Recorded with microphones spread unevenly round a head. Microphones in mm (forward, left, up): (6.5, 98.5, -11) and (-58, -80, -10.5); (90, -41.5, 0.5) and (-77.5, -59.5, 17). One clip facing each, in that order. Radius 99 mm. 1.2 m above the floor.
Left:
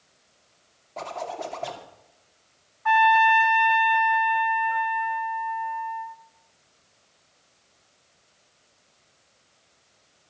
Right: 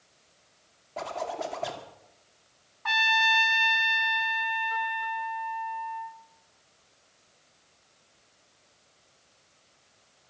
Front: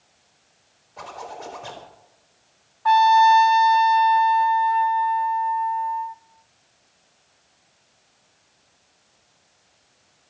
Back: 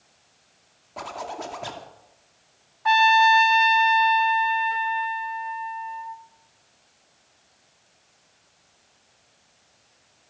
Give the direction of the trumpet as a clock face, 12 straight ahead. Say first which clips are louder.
Left 11 dB, front 4 dB; 4 o'clock.